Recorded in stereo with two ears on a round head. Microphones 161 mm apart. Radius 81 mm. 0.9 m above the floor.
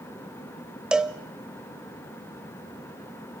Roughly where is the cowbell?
Centre.